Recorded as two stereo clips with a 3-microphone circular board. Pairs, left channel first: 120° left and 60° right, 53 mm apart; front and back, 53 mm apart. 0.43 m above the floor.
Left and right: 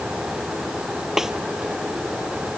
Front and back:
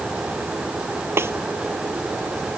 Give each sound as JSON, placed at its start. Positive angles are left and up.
{"t": 1.2, "sound": "a snare drum", "azimuth_deg": -140}